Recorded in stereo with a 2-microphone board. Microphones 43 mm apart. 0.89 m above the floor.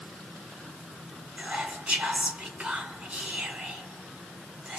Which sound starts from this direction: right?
Whispering, at 1.4 s.